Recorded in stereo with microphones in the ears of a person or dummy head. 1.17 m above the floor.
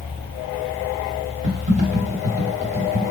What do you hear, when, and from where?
1.4 s typing on a keyboard: 40° right (ahead or behind), 1.0 m